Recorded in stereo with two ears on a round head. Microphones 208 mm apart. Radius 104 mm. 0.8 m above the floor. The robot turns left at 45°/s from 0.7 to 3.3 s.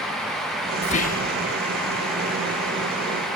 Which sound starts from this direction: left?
Whispering, at 0.8 s.